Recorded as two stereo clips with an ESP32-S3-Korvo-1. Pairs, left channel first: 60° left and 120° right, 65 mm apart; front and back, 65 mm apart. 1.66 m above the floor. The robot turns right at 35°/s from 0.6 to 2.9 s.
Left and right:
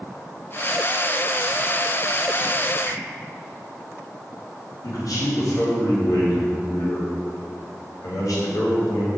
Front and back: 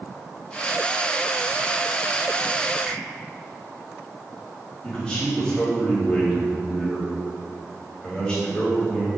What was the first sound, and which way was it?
A finger snap, 95° left.